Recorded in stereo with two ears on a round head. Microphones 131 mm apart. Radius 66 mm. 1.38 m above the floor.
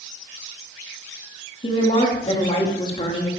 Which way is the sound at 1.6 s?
35° left (ahead or behind).